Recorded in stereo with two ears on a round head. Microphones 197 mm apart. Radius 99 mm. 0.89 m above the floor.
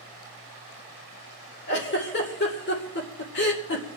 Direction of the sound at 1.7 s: 45° left (ahead or behind).